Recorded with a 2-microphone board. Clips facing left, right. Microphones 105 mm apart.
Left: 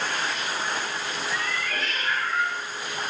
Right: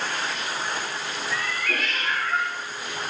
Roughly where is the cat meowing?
Right.